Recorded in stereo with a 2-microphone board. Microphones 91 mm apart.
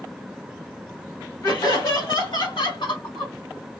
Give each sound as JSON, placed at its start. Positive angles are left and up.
{"t": 1.4, "sound": "laughter", "side_deg": 40, "distance_m": 2.0}